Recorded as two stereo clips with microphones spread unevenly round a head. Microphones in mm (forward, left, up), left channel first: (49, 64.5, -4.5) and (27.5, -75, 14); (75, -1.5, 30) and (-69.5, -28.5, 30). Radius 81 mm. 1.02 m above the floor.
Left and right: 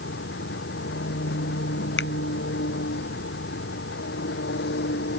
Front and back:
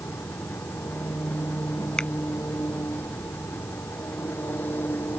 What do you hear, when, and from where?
0.0 s an engine running: 90° left
2.0 s a finger snap: 95° left